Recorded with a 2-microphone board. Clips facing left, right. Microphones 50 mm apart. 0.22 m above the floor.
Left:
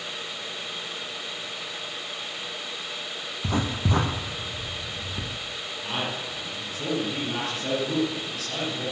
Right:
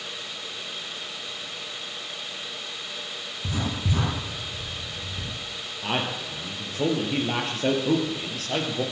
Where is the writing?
60° left (ahead or behind), 5 m.